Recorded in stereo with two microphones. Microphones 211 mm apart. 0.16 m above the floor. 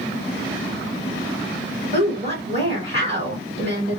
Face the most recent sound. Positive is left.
turn(degrees=-25)  # may be behind; listen again after turning